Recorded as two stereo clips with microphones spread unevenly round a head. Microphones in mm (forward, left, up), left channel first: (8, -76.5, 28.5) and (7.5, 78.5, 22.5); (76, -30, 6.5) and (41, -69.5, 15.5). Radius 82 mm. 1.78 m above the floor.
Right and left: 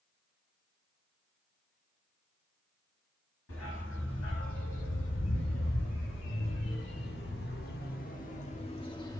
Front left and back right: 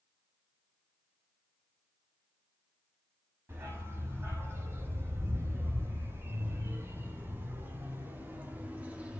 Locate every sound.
3.5 s a dog barking: 95° right, 5.5 m; by 9.2 s 140° right, 1.4 m